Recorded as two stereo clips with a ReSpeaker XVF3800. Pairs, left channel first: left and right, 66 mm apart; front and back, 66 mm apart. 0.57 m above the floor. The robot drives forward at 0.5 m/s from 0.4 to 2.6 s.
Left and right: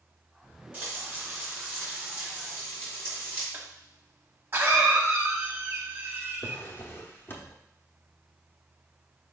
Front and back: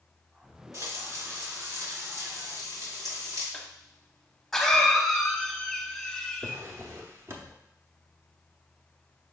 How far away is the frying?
About 2.5 m.